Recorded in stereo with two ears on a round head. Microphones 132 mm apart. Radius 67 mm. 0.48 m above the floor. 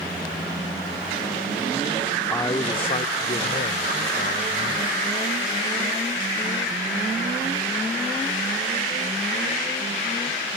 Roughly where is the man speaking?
Centre.